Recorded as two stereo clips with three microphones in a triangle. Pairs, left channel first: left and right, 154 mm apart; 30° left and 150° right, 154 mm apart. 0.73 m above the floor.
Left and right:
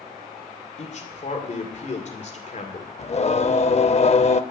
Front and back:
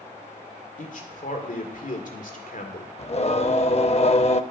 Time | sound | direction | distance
0.8 | a man speaking | 55° left | 2 m
3.0 | singing | 60° left | 0.6 m